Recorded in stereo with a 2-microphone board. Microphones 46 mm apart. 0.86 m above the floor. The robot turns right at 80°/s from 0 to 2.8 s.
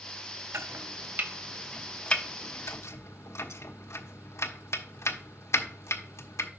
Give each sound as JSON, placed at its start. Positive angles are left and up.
{"t": 0.5, "sound": "chopping", "side_deg": -80, "distance_m": 0.9}